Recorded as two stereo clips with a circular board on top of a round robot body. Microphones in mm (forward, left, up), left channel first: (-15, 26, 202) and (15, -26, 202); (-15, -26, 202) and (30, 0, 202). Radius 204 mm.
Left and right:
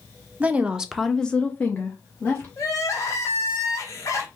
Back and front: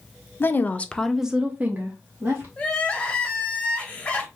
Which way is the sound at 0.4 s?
120° right.